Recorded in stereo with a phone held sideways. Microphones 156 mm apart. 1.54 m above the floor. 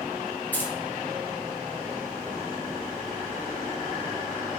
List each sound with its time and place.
0.5 s keys jangling: 10° left (ahead or behind), 0.5 m